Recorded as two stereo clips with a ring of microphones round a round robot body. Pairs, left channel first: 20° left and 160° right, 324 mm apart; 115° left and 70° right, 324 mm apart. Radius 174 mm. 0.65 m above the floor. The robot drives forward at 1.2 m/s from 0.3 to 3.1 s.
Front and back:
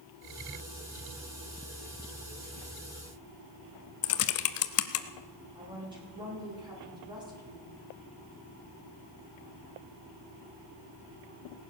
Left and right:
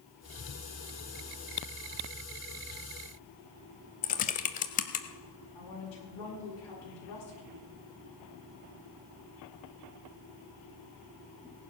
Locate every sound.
4.0 s typing on a keyboard: 55° left, 0.5 m
5.5 s a woman speaking: 125° left, 7.5 m